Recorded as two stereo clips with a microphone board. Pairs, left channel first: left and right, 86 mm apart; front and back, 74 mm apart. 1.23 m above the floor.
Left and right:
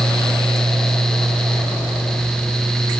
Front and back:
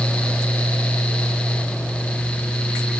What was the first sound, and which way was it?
Only background noise.